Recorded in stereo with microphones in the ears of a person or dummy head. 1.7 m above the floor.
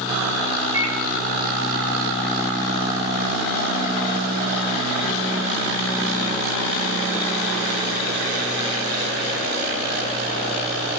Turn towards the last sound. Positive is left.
turn(degrees=-75)  # may be behind; listen again after turning